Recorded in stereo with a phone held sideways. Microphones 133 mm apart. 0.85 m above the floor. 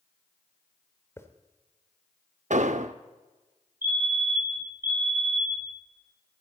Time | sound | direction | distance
1.2 | a hiss | 20° left (ahead or behind) | 1.2 m
2.5 | an explosion | 70° right (ahead or behind) | 0.7 m
3.8 | a fire alarm | 15° right (ahead or behind) | 3 m